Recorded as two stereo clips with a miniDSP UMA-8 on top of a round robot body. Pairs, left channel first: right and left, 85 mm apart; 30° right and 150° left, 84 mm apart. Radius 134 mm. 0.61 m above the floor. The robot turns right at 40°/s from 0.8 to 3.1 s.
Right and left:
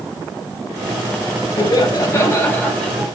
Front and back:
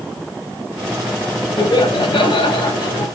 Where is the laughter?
65° right, 4.5 m; by 3.1 s 10° right, 4.5 m.